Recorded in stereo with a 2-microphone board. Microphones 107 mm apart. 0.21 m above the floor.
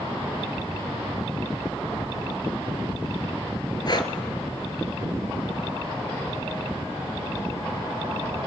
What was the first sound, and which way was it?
Breathing, 40° left (ahead or behind).